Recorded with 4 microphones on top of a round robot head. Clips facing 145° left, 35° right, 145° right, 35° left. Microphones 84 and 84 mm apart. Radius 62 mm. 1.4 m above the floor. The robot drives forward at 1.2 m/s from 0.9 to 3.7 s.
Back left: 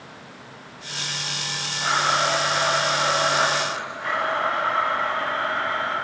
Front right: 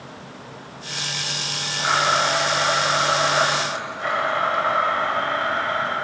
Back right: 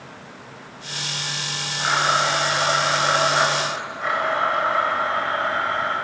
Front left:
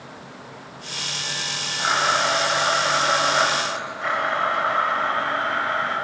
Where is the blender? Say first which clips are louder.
Front right 2 dB, back right 1 dB; 45° right, 7.5 m; by 6.0 s 65° right, 6 m.